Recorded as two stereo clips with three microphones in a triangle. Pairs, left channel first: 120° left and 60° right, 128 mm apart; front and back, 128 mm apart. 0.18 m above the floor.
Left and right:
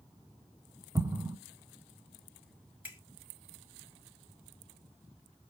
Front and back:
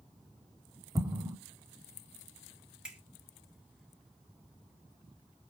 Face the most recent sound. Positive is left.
turn(degrees=-105)